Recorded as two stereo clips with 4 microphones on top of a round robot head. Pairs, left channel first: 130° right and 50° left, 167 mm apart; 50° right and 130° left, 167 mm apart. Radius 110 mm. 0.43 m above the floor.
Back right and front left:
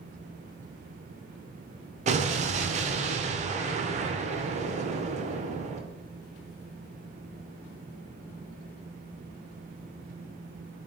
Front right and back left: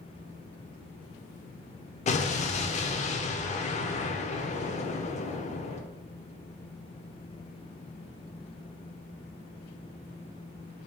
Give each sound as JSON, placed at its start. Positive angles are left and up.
{"t": 2.1, "sound": "an explosion", "azimuth_deg": 0, "distance_m": 0.5}